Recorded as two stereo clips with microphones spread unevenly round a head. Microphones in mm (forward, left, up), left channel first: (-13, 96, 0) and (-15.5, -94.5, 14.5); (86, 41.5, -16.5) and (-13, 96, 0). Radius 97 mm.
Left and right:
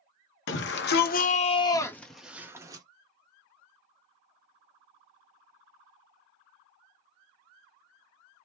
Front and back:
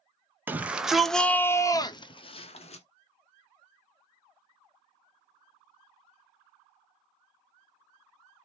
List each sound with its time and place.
0.5 s a shout: 75° left, 0.9 m; by 2.8 s 20° right, 1.0 m